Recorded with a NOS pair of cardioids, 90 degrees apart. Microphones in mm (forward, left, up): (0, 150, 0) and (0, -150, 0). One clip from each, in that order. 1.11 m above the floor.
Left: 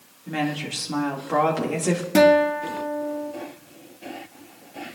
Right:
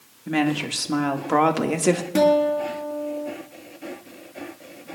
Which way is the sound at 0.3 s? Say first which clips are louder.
Right 4 dB; 35° right.